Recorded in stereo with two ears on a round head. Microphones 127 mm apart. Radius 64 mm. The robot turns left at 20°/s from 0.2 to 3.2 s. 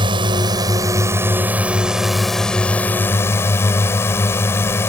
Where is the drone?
140° right; by 4.9 s 160° left.